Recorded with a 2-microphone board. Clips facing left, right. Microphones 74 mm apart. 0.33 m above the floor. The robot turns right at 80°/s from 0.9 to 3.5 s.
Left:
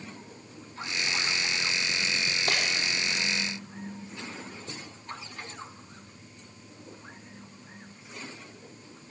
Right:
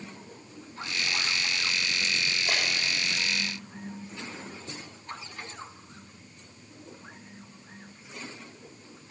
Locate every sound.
2.5 s breaking glass: 60° left (ahead or behind), 5 m; by 2.6 s 75° left (ahead or behind), 5 m